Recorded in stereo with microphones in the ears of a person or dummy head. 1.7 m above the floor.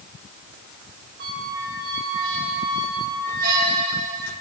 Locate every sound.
1.2 s a squeak: 55° right (ahead or behind), 1.6 m